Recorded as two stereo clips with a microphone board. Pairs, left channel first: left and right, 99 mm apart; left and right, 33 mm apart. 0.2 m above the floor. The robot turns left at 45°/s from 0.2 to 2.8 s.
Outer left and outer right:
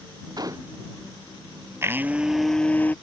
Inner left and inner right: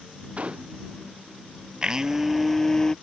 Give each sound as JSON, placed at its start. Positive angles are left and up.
{"t": 0.4, "sound": "a gunshot", "side_deg": -45}
{"t": 1.8, "sound": "a blender", "azimuth_deg": -150}